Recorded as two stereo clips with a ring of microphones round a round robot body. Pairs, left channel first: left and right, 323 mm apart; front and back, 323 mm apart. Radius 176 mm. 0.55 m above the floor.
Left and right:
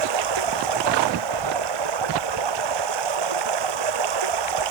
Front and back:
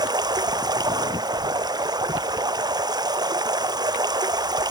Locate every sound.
0.0 s running water: 100° right